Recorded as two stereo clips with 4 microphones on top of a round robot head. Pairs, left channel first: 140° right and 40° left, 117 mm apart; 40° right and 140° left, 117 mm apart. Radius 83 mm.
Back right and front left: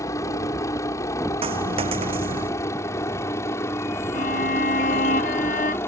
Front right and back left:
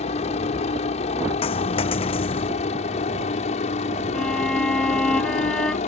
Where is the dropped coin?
Straight ahead.